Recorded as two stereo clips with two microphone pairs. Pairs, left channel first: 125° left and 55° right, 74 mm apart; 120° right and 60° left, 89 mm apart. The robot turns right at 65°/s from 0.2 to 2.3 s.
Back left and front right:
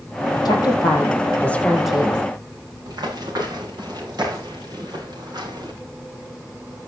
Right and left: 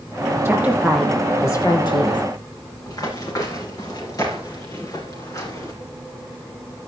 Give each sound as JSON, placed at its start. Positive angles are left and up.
{"t": 0.5, "sound": "a woman speaking", "azimuth_deg": 125, "distance_m": 3.5}
{"t": 2.9, "sound": "running footsteps", "azimuth_deg": -75, "distance_m": 8.0}